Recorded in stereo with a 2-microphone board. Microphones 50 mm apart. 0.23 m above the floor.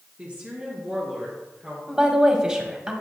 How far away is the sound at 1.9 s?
About 1.0 m.